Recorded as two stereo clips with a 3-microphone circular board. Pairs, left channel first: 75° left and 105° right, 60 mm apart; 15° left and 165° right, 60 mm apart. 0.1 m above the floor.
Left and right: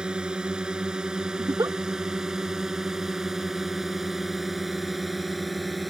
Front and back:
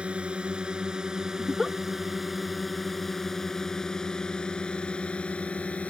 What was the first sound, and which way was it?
A drone, 150° right.